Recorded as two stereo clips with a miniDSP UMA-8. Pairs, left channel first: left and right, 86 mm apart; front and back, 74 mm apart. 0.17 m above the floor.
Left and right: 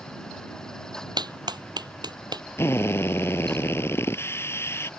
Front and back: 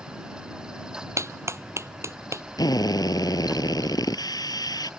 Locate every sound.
1.2 s a clap: 125° right
2.6 s a drill: 30° left